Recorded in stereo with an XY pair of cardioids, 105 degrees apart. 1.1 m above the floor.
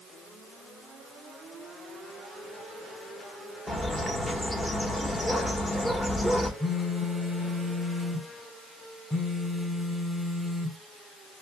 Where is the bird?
10° left, 1.2 m.